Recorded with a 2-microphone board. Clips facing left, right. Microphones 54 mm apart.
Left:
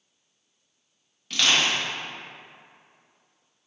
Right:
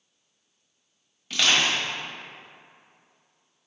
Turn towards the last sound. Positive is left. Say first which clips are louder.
# even
turn(degrees=-5)  # may be behind; listen again after turning